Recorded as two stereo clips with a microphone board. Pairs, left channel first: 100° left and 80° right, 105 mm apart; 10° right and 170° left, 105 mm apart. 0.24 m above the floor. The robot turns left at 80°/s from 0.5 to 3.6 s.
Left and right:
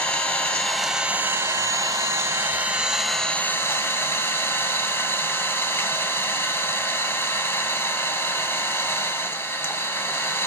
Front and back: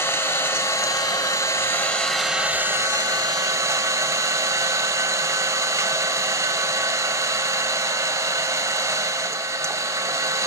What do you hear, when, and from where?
0.0 s an engine running: 35° left, 1.3 m; by 10.5 s 145° left, 1.3 m